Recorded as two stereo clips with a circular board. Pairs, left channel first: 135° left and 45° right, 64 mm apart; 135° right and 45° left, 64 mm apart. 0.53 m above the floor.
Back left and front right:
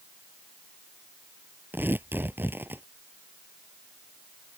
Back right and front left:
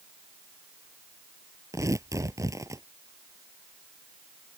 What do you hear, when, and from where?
1.7 s tearing paper: 15° left